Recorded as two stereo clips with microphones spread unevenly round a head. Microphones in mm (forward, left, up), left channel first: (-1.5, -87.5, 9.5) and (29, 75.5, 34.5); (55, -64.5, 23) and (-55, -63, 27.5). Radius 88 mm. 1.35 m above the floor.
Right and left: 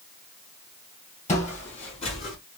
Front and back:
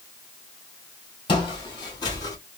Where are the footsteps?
45° right, 2.5 m.